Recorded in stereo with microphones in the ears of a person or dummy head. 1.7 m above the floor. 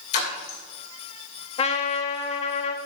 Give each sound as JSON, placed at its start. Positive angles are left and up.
{"t": 0.1, "sound": "a splash", "side_deg": 60, "distance_m": 2.5}
{"t": 1.6, "sound": "a trumpet", "side_deg": 40, "distance_m": 0.6}